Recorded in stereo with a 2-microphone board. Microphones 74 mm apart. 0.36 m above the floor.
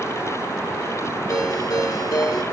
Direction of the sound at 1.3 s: 50° left (ahead or behind).